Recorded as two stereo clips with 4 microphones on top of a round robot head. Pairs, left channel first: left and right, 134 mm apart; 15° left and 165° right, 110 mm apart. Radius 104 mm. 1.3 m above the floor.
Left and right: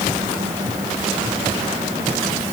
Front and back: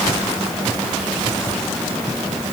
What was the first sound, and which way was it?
Only background noise.